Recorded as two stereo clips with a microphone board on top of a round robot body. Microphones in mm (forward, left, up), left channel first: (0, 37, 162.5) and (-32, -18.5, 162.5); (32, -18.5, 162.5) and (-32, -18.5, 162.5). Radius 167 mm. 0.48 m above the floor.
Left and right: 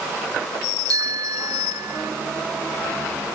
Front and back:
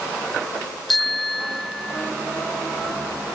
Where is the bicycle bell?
90° right; by 2.1 s 85° right.